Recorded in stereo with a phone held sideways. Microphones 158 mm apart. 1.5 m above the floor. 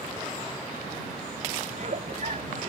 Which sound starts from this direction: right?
A giggle, at 1.7 s.